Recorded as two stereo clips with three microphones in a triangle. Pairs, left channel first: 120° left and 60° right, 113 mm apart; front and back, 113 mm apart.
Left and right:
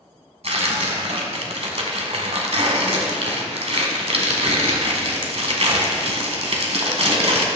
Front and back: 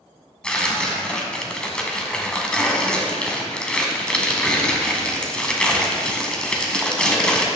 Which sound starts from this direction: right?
Tearing paper, at 0.4 s.